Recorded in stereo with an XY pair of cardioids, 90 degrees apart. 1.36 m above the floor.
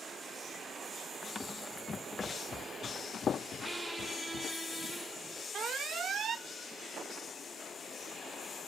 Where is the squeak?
25° right.